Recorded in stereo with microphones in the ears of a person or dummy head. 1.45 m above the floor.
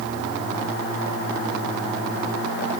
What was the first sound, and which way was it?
Only background noise.